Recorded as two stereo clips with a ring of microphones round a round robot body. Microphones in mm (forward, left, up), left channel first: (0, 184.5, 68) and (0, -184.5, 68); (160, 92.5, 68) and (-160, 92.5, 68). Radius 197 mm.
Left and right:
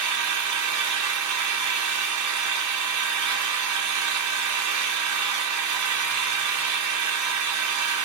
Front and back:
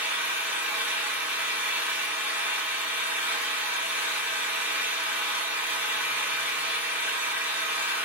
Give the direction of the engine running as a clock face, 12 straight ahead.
3 o'clock.